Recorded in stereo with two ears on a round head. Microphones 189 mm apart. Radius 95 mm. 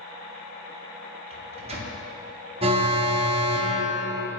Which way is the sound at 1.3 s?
30° right (ahead or behind).